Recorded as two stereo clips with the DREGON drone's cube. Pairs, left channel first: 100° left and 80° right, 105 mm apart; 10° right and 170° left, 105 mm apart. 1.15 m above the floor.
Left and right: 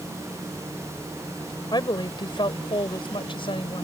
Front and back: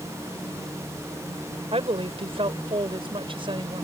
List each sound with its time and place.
1.7 s a woman speaking: 145° left; by 3.9 s 135° left